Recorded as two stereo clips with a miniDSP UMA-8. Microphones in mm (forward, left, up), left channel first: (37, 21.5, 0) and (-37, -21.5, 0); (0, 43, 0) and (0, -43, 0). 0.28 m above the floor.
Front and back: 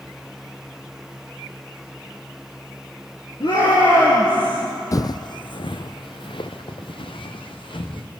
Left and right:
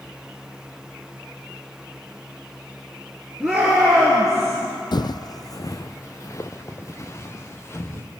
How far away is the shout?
About 4.5 m.